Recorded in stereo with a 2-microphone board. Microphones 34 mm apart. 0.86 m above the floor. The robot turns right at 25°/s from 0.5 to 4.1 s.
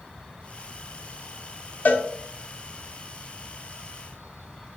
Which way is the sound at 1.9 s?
70° left (ahead or behind).